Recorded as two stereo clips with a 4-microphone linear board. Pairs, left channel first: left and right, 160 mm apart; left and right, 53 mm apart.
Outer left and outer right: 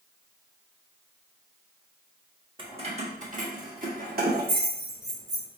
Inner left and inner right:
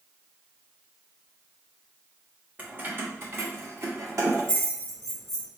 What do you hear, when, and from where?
2.6 s keys jangling: 30° right (ahead or behind), 0.9 m; by 5.5 s 75° right (ahead or behind), 2.0 m